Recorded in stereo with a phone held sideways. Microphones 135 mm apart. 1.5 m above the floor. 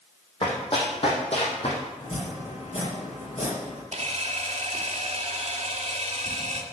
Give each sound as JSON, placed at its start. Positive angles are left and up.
{"t": 0.4, "sound": "running footsteps", "side_deg": 40, "distance_m": 3.5}
{"t": 2.0, "sound": "chopping", "side_deg": 50, "distance_m": 6.0}
{"t": 3.9, "sound": "a camera shutter", "side_deg": -60, "distance_m": 1.8}